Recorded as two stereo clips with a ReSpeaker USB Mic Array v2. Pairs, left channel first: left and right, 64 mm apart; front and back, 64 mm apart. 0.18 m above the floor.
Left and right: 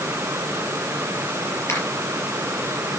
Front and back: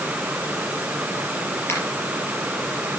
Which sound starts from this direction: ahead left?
A finger snap, at 1.7 s.